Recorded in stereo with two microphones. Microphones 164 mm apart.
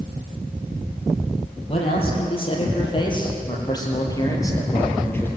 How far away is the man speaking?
About 7 m.